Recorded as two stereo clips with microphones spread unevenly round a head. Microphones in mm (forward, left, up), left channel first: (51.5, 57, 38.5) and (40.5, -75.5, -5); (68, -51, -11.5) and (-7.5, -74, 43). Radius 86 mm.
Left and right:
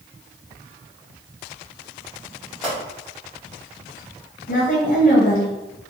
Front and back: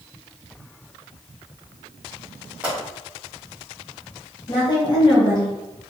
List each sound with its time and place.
2.6 s a pop: 150° left, 1.6 m
4.5 s a woman speaking: 60° left, 1.3 m